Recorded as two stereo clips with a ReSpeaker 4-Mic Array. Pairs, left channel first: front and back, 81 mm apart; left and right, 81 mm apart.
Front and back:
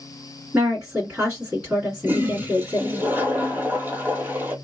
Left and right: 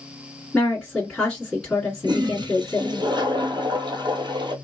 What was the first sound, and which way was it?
A woman speaking, 160° left.